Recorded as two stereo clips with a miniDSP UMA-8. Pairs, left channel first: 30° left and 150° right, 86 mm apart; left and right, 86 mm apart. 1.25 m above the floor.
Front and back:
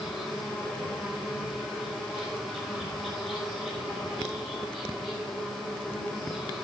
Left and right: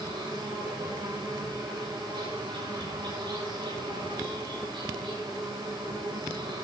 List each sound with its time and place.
0.0 s an insect: 60° right, 5.5 m